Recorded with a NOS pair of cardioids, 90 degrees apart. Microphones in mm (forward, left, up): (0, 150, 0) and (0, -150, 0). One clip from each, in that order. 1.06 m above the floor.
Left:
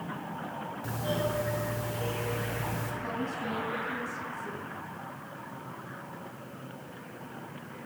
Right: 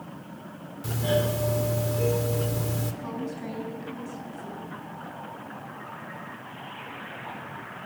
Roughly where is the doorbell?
Ahead right.